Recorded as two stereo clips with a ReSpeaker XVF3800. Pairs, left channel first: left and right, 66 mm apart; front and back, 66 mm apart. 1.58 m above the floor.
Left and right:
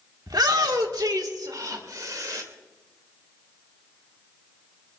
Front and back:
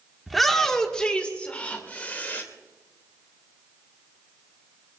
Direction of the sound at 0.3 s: 90° right.